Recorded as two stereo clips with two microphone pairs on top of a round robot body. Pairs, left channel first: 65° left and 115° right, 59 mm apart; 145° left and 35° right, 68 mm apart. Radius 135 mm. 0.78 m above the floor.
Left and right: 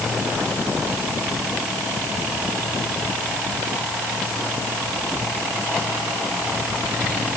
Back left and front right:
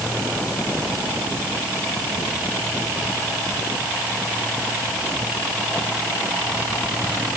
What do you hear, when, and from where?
Only background noise.